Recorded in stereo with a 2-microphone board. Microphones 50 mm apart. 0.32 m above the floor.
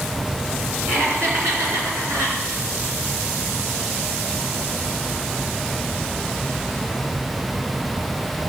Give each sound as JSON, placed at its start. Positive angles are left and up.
{"t": 0.9, "sound": "laughter", "side_deg": -45, "distance_m": 3.5}